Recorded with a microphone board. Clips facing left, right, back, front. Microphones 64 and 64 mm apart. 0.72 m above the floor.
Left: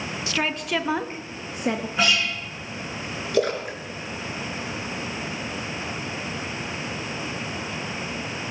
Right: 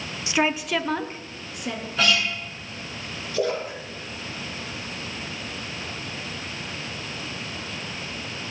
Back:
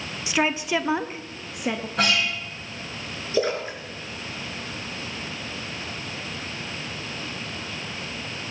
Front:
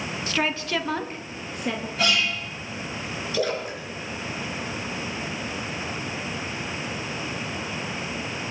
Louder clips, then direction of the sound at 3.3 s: Left 2 dB, back 3 dB; 120° left.